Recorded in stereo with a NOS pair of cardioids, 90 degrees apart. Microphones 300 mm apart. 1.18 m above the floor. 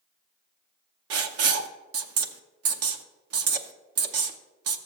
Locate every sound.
1.1 s writing: 50° right, 0.8 m